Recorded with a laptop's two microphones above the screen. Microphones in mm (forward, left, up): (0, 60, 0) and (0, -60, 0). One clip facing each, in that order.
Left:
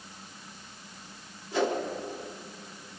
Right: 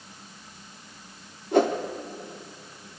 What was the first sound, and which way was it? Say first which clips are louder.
A whoosh: right 7 dB; 50° right (ahead or behind).